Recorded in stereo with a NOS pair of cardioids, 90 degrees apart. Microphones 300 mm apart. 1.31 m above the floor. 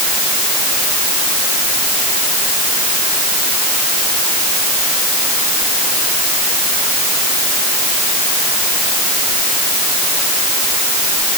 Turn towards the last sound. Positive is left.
No sound to turn to.